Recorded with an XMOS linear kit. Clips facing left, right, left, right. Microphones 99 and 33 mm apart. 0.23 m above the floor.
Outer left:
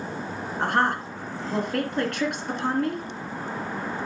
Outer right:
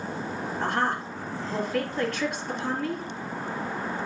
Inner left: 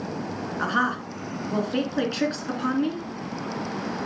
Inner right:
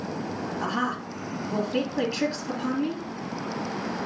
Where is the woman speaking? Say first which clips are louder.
Outer left 4 dB, inner left 5 dB; 65° left (ahead or behind), 2.5 m.